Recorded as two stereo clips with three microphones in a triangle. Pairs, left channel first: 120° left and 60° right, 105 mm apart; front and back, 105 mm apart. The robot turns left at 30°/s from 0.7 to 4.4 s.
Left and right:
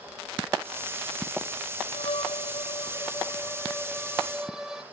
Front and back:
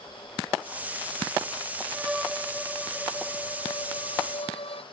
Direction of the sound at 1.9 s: 100° left.